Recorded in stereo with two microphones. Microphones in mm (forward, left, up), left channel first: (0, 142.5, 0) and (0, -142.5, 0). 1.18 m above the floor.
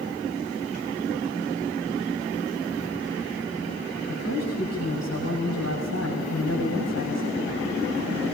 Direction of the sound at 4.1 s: 65° left (ahead or behind).